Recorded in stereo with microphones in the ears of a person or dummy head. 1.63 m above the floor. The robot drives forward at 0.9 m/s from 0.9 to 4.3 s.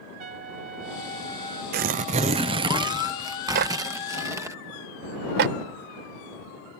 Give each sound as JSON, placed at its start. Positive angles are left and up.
{"t": 0.2, "sound": "a trumpet", "side_deg": -40}
{"t": 1.7, "sound": "tearing paper", "side_deg": -45}
{"t": 3.5, "sound": "a clap", "side_deg": -55}